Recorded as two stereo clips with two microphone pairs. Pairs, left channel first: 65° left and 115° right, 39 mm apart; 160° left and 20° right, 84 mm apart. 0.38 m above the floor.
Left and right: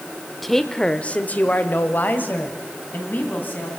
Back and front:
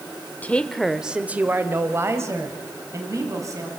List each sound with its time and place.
0.4 s a woman speaking: 155° left, 0.9 m; by 3.7 s 30° left, 3 m